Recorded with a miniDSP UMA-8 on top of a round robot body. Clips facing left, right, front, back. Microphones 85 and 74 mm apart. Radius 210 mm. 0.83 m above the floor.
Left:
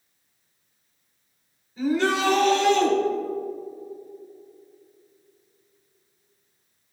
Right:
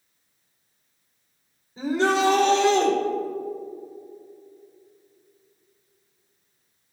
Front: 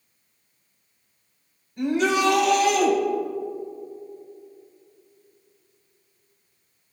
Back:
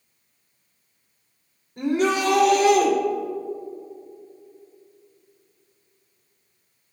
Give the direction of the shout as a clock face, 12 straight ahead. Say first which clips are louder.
Right 1 dB, even; 5 o'clock.